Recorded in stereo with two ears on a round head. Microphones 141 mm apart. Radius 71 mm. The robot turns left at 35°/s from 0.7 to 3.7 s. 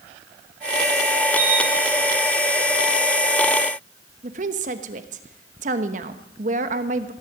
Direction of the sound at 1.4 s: 50° right (ahead or behind).